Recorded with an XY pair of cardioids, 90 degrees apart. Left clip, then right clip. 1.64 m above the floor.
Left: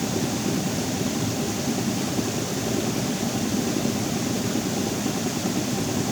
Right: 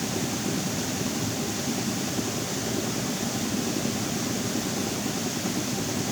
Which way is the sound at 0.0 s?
25° left.